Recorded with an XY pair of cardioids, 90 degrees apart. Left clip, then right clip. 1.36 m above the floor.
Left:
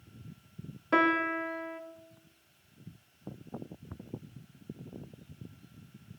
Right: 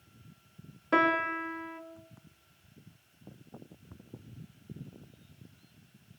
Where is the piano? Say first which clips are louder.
Even; 5° right, 1.8 m.